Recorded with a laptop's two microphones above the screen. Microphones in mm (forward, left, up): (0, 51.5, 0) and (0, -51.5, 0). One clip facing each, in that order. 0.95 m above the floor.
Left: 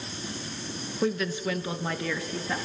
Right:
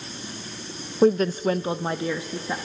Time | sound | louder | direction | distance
1.0 | a woman speaking | right 9 dB | 40° right (ahead or behind) | 0.5 m